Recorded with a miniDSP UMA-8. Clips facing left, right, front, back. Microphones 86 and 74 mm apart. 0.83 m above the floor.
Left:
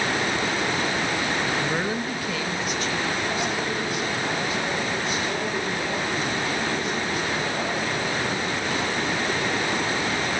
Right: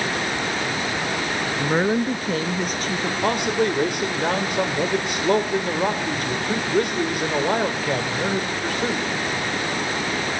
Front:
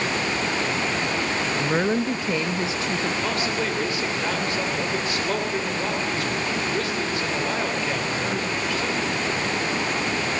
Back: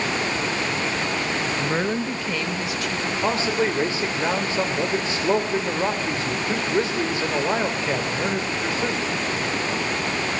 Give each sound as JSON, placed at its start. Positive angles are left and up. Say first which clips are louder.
{"t": 1.6, "sound": "a woman speaking", "louder": "right 5 dB, front 4 dB", "azimuth_deg": -90, "distance_m": 0.9}
{"t": 3.2, "sound": "a man speaking", "louder": "right 6 dB, back 3 dB", "azimuth_deg": -115, "distance_m": 3.0}